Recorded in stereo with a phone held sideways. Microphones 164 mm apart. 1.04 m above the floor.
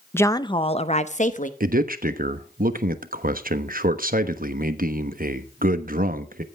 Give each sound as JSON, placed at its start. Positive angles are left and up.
{"t": 0.1, "sound": "a woman speaking", "side_deg": 15, "distance_m": 0.6}
{"t": 1.6, "sound": "a man speaking", "side_deg": -65, "distance_m": 1.1}